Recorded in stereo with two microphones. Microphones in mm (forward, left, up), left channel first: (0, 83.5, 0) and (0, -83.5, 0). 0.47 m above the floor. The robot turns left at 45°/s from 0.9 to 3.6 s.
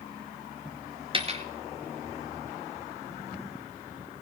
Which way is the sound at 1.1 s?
35° right (ahead or behind).